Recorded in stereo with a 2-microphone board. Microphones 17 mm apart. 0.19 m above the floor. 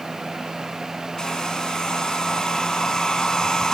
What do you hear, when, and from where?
1.2 s a hair dryer: 35° left (ahead or behind), 2 m